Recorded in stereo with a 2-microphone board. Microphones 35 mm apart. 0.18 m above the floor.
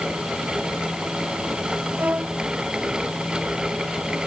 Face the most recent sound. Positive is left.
turn(degrees=-45)  # may be behind; listen again after turning